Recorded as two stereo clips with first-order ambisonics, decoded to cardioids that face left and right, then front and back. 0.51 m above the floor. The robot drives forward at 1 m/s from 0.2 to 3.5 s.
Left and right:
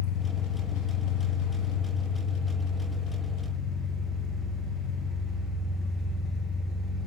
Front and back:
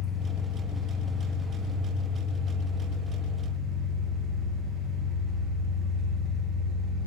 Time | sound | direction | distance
0.0 | an engine running | 75° left | 2 m